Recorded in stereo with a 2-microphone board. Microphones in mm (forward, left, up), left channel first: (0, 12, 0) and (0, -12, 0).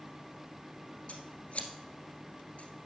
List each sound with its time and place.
1.1 s scissors: 75° left (ahead or behind), 1.5 m